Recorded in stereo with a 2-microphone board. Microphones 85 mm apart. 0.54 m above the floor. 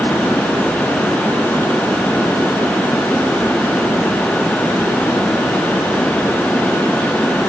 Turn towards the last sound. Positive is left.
No sound to turn to.